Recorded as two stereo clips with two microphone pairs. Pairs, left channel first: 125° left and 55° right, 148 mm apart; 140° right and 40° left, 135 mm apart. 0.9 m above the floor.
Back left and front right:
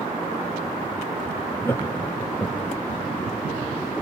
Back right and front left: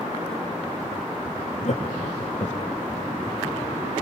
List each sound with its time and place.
1.6 s laughter: 160° right, 1.0 m